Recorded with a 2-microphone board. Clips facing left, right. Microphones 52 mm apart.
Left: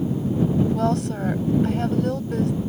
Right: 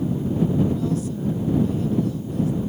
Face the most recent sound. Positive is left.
turn(degrees=75)  # may be behind; listen again after turning